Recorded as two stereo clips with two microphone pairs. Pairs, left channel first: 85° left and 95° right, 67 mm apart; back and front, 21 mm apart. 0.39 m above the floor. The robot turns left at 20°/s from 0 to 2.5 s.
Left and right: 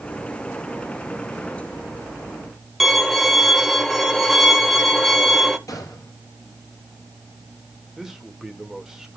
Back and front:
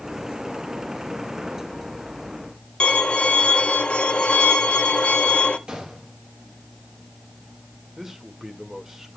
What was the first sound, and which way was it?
A violin, straight behind.